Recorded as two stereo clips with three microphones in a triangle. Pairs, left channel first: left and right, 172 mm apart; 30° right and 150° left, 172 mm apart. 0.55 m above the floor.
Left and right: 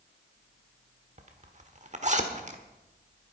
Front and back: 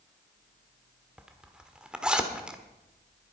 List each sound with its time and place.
1.2 s a zipper: 125° right, 1.3 m